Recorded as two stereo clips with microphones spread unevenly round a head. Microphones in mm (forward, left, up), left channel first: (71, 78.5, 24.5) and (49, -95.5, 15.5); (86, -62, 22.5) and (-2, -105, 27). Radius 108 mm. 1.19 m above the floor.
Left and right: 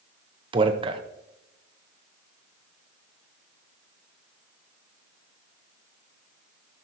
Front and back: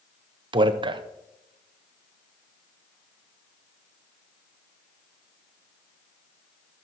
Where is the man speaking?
150° right, 0.8 m.